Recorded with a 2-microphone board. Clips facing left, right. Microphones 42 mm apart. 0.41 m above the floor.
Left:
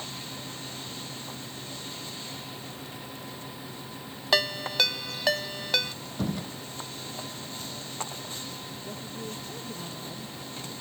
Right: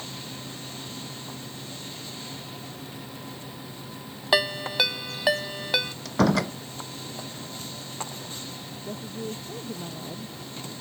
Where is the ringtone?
10° right (ahead or behind).